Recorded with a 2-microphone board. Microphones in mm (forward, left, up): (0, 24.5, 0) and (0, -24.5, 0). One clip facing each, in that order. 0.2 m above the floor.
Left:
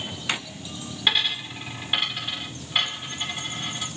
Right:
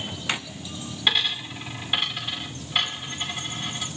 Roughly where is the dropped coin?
Centre.